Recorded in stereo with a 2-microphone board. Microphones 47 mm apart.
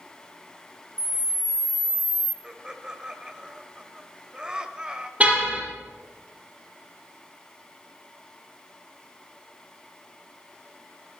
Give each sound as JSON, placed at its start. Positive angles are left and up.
{"t": 1.0, "sound": "a camera shutter", "side_deg": 30, "distance_m": 0.6}
{"t": 2.4, "sound": "laughter", "side_deg": -20, "distance_m": 1.5}
{"t": 5.2, "sound": "a car horn", "side_deg": -30, "distance_m": 4.0}